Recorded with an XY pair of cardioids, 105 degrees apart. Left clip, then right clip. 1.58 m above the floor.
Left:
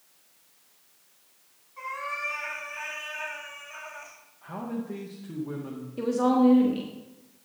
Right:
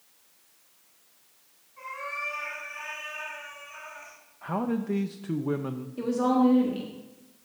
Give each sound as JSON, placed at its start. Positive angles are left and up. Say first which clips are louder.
{"t": 1.8, "sound": "a cat meowing", "louder": "left 2 dB", "azimuth_deg": 50, "distance_m": 4.0}
{"t": 4.4, "sound": "a man speaking", "louder": "right 6 dB", "azimuth_deg": -60, "distance_m": 0.6}
{"t": 6.0, "sound": "a woman speaking", "louder": "left 1 dB", "azimuth_deg": 15, "distance_m": 1.2}